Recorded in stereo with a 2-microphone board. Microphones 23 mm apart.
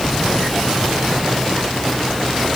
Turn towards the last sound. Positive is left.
No sound to turn to.